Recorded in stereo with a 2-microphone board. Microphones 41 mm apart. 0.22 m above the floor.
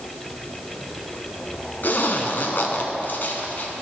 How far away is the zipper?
About 1.0 m.